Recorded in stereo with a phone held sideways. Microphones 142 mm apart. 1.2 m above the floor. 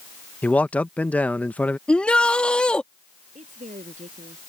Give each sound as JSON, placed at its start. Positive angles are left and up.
{"t": 0.4, "sound": "a man speaking", "side_deg": 10}
{"t": 1.9, "sound": "a shout", "side_deg": 5}
{"t": 3.4, "sound": "a woman speaking", "side_deg": -60}